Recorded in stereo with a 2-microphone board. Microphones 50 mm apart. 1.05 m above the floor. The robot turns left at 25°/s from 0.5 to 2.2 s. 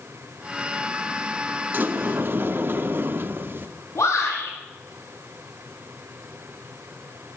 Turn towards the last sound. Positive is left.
turn(degrees=80)